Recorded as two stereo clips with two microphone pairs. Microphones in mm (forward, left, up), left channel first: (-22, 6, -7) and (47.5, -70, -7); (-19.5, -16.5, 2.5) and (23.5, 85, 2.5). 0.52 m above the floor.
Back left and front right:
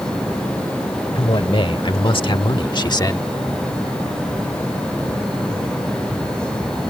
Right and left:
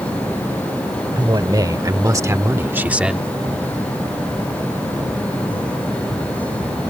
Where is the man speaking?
110° left; by 3.2 s 150° left.